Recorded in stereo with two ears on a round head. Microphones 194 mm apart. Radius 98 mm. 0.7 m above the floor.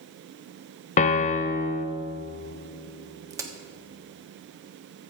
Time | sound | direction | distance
1.0 | a piano | 35° left (ahead or behind) | 0.6 m
3.3 | a crack | 15° right (ahead or behind) | 1.3 m